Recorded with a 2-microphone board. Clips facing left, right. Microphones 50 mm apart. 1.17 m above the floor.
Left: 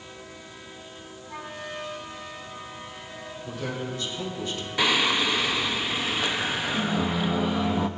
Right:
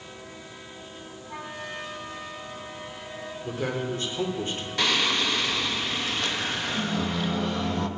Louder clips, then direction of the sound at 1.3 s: Even; 10° right (ahead or behind).